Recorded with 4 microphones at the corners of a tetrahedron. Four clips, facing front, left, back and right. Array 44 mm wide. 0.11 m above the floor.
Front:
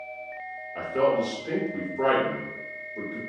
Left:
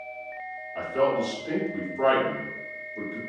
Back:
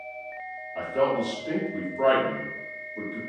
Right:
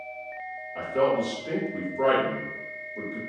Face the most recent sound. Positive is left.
turn(degrees=-15)